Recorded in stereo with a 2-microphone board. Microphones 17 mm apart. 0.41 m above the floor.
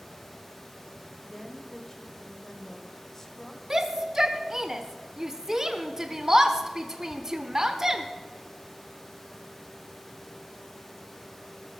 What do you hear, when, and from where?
1.2 s a woman speaking: 25° left (ahead or behind), 1.6 m
3.7 s a shout: 25° right (ahead or behind), 0.9 m